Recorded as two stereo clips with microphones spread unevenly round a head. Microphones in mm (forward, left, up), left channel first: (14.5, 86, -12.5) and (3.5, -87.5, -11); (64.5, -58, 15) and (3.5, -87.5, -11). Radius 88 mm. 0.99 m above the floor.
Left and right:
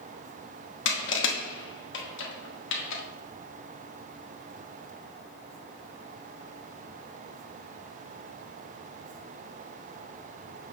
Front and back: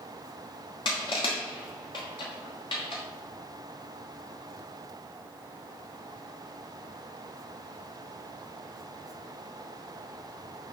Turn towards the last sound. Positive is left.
turn(degrees=65)